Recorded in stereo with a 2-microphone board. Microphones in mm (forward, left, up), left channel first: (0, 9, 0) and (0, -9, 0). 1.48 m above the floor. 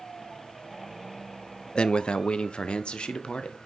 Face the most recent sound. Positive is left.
turn(degrees=75)  # may be behind; listen again after turning